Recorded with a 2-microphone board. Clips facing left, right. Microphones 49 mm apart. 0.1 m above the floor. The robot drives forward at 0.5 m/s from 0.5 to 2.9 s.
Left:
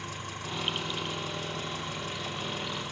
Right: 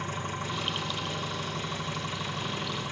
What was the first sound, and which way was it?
An engine running, 35° right (ahead or behind).